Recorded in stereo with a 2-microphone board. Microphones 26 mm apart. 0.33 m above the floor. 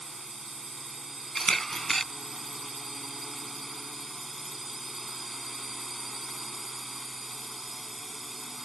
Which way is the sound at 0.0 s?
10° right (ahead or behind).